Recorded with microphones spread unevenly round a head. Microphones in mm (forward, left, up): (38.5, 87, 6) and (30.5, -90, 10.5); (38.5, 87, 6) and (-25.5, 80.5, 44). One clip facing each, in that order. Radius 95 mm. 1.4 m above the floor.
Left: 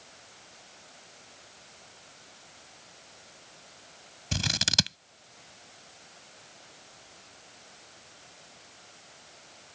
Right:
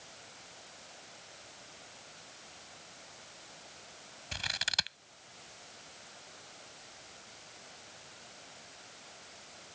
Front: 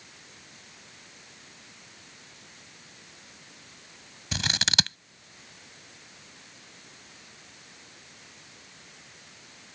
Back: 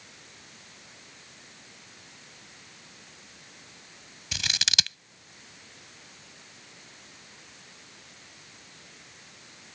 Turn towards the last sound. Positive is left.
turn(degrees=55)